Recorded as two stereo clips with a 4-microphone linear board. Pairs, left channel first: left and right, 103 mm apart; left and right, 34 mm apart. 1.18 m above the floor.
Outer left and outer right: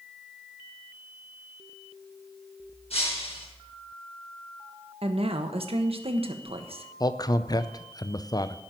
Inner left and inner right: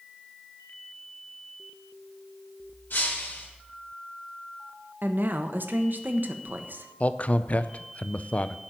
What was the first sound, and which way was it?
Breaking glass, 75° left (ahead or behind).